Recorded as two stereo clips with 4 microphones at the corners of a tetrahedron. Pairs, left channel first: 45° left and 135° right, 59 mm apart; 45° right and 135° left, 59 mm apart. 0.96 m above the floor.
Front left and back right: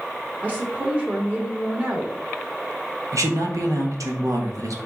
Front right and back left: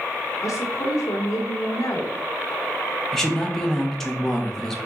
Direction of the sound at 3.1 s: 125° right.